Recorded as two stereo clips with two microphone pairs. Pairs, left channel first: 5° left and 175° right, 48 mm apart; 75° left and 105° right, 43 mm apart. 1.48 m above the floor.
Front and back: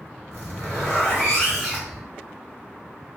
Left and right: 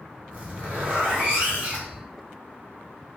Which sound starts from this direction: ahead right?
A zipper, at 0.3 s.